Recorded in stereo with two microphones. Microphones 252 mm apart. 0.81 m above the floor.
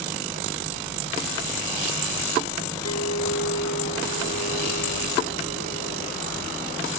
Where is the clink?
85° left.